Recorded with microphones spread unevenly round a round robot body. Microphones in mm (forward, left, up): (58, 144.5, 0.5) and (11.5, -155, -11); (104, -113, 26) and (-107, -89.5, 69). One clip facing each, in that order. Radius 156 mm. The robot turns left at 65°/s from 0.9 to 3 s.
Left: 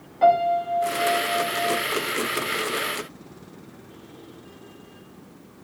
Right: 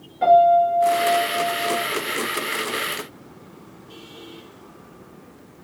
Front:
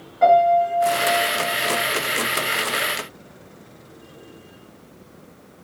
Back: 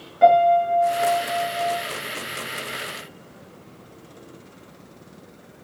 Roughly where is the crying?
I don't hear crying.